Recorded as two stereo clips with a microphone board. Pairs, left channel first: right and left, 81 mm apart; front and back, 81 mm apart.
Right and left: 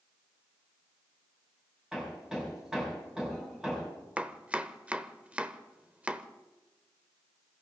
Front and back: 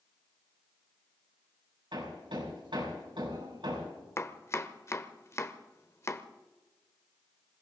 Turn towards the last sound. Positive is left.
turn(degrees=25)